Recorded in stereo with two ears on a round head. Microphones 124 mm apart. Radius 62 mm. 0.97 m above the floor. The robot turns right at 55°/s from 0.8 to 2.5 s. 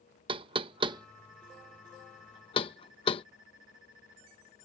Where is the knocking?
35° right (ahead or behind); by 3.2 s 40° left (ahead or behind).